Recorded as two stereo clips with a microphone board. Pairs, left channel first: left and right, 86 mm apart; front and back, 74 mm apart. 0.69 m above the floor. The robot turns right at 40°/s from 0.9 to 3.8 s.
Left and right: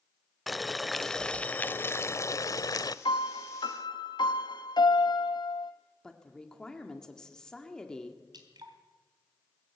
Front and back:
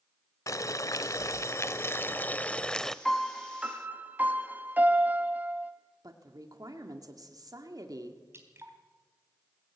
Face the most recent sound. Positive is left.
turn(degrees=-125)